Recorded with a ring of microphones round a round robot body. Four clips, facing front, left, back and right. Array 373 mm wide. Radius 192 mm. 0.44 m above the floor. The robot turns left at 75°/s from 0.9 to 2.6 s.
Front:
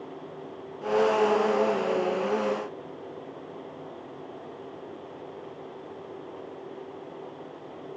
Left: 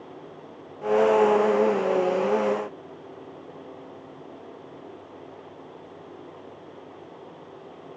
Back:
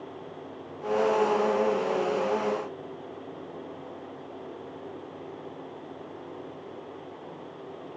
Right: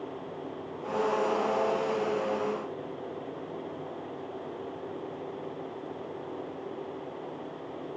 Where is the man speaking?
I don't hear a man speaking.